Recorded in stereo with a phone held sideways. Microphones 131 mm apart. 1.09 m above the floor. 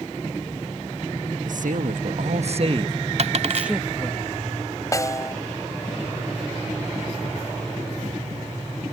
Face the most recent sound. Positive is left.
turn(degrees=25)  # may be behind; listen again after turning